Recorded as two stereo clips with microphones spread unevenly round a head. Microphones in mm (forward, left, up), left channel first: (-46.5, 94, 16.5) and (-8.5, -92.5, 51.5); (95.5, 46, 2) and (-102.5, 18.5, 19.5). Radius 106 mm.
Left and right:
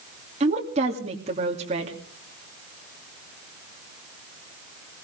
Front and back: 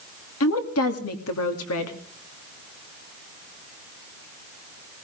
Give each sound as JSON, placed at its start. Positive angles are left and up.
{"t": 0.4, "sound": "a woman speaking", "azimuth_deg": -20, "distance_m": 2.5}